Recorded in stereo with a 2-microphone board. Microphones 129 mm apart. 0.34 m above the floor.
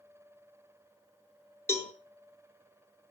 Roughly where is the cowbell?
Centre.